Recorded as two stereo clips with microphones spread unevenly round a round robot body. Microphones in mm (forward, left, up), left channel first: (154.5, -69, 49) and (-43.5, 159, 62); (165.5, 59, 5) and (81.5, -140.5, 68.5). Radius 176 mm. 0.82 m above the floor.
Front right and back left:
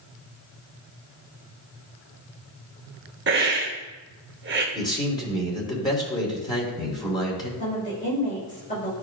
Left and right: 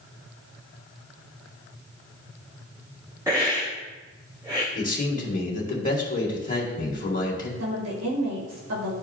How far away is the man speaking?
About 2.5 m.